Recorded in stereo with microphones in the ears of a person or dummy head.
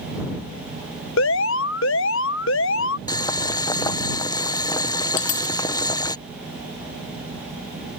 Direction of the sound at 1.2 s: 65° left (ahead or behind).